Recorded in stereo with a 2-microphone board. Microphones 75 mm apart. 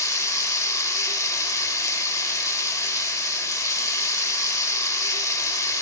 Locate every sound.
0.0 s running water: 45° left (ahead or behind), 0.9 m